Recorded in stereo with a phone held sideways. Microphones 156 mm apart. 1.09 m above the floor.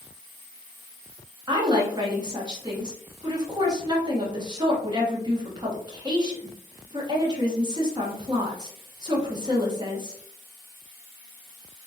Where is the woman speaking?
25° right (ahead or behind), 1.1 m.